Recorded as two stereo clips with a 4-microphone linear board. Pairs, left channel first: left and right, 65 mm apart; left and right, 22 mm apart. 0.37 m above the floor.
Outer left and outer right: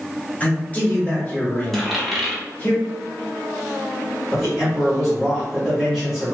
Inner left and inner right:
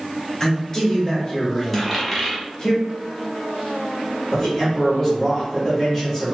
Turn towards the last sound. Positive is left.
turn(degrees=5)  # may be behind; listen again after turning